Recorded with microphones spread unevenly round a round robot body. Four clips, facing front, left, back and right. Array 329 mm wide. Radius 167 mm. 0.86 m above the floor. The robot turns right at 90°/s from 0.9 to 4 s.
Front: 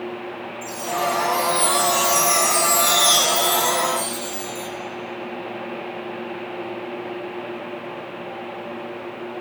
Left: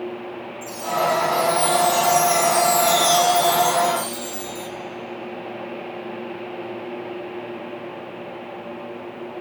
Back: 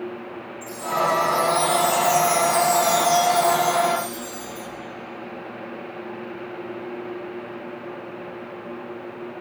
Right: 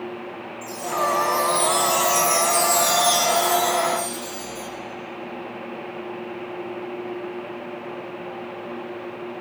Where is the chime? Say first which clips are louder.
Left 2 dB, back 1 dB; 175° left, 1.7 m; by 4.7 s 95° left, 1.7 m.